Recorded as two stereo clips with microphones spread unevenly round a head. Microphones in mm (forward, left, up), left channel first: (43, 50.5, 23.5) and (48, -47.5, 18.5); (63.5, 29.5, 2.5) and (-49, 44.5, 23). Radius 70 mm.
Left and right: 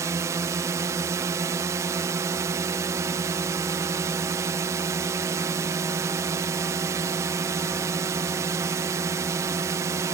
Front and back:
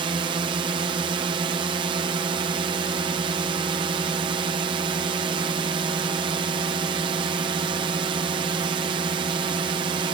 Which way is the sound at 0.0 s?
140° right.